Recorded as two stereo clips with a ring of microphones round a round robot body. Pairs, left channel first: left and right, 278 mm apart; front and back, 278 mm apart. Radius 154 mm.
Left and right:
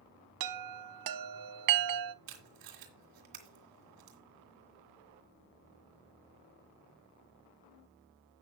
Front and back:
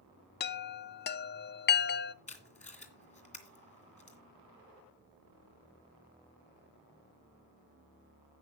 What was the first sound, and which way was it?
A chime, 55° right.